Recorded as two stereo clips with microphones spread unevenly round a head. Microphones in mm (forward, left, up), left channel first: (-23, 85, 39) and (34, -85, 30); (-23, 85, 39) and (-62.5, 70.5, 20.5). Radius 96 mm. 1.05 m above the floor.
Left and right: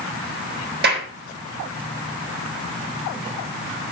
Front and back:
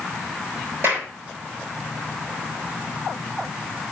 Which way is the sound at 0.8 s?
105° right.